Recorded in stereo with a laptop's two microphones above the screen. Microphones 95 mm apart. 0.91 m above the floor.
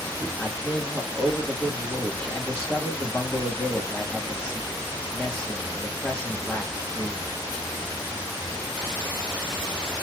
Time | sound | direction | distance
0.4 | a man speaking | 5° left (ahead or behind) | 0.9 m